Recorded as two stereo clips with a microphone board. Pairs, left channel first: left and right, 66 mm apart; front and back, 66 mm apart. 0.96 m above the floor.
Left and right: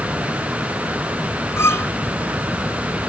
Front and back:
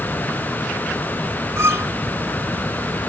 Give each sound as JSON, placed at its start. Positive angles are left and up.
{"t": 1.6, "sound": "a violin", "azimuth_deg": 135}